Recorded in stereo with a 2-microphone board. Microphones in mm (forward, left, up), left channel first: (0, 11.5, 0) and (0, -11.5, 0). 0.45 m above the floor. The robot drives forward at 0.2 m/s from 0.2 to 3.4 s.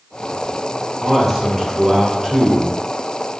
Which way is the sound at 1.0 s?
15° right (ahead or behind).